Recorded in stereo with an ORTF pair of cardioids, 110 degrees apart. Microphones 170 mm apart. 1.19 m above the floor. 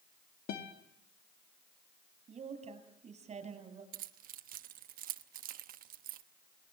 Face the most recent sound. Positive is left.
turn(degrees=-60)